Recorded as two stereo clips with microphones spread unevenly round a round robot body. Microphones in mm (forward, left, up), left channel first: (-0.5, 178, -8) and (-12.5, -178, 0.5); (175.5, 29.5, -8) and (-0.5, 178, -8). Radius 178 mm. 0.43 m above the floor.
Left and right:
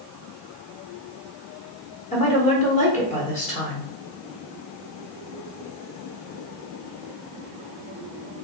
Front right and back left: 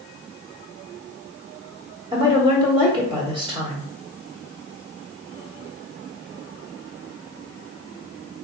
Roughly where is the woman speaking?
Behind left.